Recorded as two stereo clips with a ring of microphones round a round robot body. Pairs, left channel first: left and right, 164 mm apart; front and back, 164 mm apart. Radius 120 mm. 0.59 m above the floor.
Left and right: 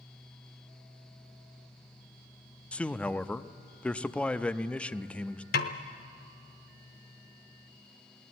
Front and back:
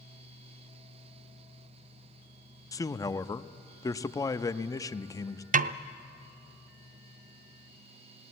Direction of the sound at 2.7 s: 20° left.